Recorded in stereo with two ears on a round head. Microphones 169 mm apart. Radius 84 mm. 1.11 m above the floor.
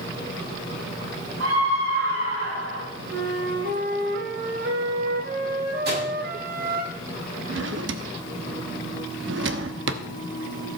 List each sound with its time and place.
1.4 s a scream: 70° right (ahead or behind), 7.5 m; by 2.9 s 60° right (ahead or behind), 8.5 m
3.1 s a flute: 55° right (ahead or behind), 1.8 m
5.8 s a microwave: 55° right (ahead or behind), 7.5 m
7.5 s a drawer: 70° right (ahead or behind), 1.0 m